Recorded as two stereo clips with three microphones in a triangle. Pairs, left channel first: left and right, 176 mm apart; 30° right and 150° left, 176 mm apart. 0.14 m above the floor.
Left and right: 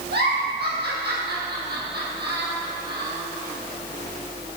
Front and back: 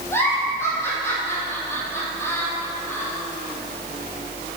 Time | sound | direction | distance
0.1 | a giggle | 105° right | 4 m